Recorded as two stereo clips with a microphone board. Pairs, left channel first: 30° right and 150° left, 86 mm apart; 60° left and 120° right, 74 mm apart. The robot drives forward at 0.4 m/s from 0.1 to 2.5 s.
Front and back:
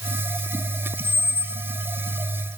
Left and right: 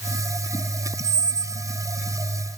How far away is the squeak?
About 0.6 m.